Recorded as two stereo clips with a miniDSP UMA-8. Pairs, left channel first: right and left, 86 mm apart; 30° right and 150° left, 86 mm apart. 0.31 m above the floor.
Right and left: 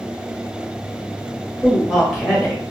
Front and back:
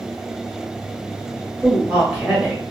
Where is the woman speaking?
175° right, 1.3 m.